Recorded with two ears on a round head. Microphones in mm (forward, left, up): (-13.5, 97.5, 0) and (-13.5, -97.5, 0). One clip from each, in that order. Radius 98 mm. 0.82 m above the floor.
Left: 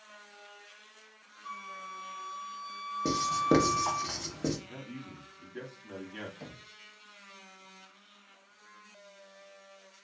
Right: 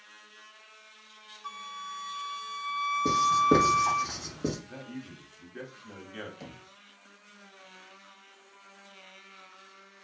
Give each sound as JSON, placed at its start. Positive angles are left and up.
{"t": 1.4, "sound": "a flute", "side_deg": -45, "distance_m": 0.5}
{"t": 3.0, "sound": "writing", "side_deg": 25, "distance_m": 1.2}
{"t": 4.7, "sound": "a man speaking", "side_deg": -5, "distance_m": 0.9}
{"t": 6.4, "sound": "knocking", "side_deg": -15, "distance_m": 0.6}